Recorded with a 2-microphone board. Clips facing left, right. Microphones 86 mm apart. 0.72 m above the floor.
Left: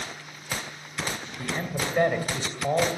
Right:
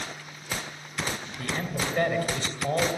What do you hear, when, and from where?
1.4 s a man speaking: 10° left (ahead or behind), 2.5 m